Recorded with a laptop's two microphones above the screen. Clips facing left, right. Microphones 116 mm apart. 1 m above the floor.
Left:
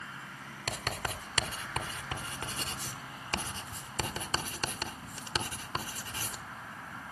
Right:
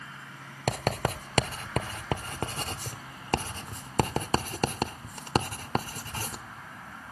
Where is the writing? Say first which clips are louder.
Right 9 dB; 50° right (ahead or behind), 1.0 m.